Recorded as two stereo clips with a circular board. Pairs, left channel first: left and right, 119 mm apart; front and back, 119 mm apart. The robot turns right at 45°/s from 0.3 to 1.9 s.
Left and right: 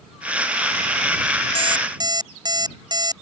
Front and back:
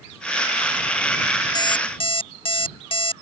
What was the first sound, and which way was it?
An alarm clock, 55° right.